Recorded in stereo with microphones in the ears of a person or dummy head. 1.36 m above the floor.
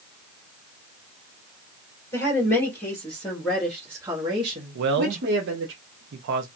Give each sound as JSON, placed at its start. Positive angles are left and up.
{"t": 2.1, "sound": "a woman speaking", "side_deg": 20, "distance_m": 1.7}
{"t": 4.8, "sound": "a man speaking", "side_deg": -60, "distance_m": 0.6}